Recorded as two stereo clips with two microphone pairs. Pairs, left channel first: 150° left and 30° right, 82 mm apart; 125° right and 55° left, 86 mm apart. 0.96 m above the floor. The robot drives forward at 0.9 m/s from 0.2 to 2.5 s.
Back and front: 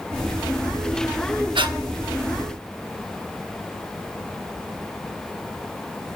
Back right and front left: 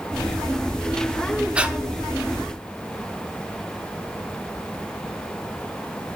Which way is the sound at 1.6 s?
25° right.